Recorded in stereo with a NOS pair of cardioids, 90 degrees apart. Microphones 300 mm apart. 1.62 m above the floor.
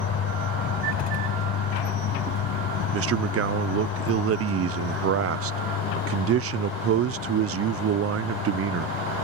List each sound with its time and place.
0.0 s a vehicle: 60° left; by 9.2 s 80° left
2.9 s a man speaking: 50° right